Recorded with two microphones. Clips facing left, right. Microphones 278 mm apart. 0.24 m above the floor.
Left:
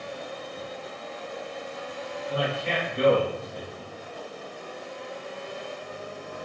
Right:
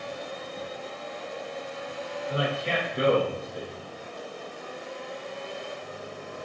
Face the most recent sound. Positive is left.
turn(degrees=-20)  # may be behind; listen again after turning